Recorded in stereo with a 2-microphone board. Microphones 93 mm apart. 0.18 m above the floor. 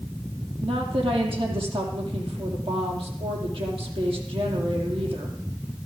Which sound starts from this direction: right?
A woman speaking, at 0.6 s.